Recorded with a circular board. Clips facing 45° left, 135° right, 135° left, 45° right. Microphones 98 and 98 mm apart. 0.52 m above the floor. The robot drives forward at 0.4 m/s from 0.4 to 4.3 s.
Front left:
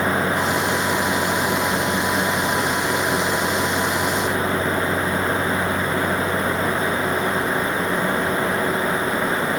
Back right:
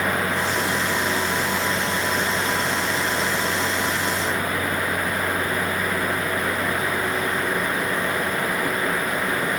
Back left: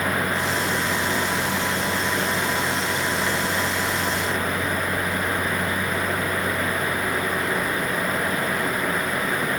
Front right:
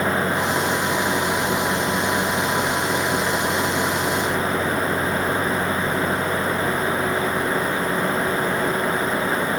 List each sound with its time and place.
Only background noise.